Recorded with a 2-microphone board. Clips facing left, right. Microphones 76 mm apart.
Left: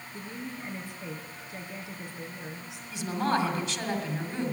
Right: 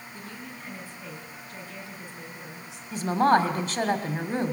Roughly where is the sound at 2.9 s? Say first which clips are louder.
Right 7 dB; right.